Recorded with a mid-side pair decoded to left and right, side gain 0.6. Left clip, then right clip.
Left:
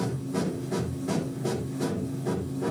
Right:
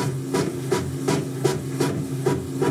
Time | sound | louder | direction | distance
0.0 | a machine running | right 6 dB | 60° right | 2.5 m